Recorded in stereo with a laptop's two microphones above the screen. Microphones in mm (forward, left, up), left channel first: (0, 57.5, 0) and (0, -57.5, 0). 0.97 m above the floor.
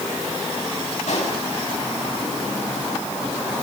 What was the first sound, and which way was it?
A pop, 80° left.